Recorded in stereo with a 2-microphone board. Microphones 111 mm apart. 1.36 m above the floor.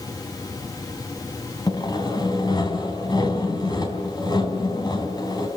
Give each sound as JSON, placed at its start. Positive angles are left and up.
{"t": 1.7, "sound": "sawing", "side_deg": 40, "distance_m": 4.0}